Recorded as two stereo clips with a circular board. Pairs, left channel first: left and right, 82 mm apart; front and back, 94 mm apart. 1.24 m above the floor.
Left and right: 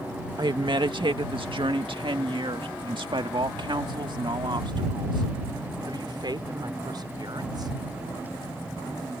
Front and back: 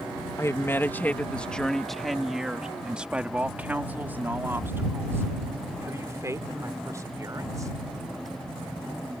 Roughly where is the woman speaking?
Ahead right.